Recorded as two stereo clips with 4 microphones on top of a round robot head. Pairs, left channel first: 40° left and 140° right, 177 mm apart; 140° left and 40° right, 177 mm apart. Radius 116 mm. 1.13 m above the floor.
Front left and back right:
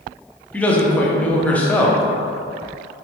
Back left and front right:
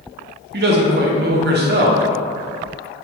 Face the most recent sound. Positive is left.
turn(degrees=-45)